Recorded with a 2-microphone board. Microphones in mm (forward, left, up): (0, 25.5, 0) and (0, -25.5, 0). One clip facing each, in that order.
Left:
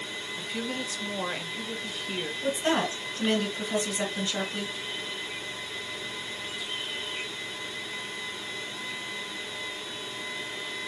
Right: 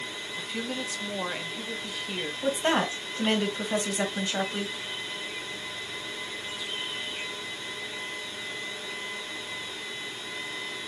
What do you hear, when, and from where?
0.4 s a woman speaking: centre (ahead or behind), 0.9 m
2.4 s a woman speaking: 30° right (ahead or behind), 1.6 m